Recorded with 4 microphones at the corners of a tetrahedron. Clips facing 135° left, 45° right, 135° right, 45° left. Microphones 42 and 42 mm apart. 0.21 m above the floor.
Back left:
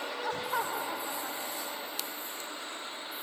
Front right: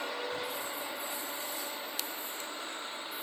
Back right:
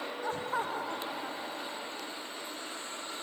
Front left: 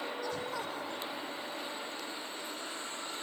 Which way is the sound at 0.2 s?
165° left.